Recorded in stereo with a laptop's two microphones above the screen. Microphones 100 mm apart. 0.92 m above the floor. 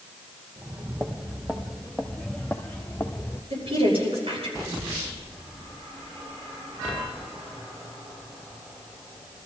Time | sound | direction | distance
0.6 | footsteps | 25° right (ahead or behind) | 1.6 m
3.5 | a woman speaking | 70° right (ahead or behind) | 5.5 m